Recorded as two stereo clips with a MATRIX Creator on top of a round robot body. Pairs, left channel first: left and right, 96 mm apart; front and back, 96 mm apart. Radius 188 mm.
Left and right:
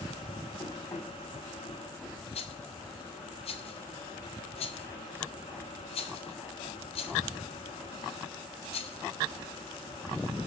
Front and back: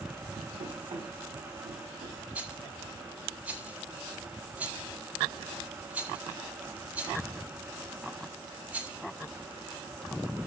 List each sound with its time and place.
0.6 s running footsteps: 165° left, 6 m; by 2.2 s straight behind, 4 m
2.4 s a rattle: 105° left, 0.6 m